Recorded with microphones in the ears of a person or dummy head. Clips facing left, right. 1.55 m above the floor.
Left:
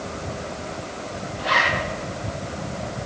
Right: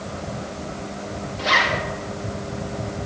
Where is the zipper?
40° right (ahead or behind), 2 m.